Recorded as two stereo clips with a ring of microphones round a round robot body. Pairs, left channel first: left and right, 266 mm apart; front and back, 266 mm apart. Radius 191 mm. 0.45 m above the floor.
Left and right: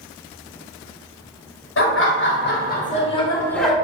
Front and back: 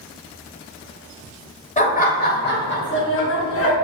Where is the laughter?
60° left, 1.7 m; by 3.8 s straight ahead, 1.2 m.